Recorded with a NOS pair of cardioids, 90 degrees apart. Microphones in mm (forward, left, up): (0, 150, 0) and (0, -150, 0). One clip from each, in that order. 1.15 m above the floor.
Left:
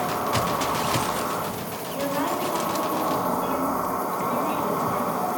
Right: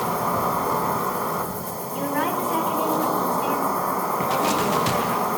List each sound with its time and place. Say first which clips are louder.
0.0 s an insect: right 2 dB; 45° right, 3.5 m
1.9 s a woman speaking: right 2 dB; 50° right, 4.5 m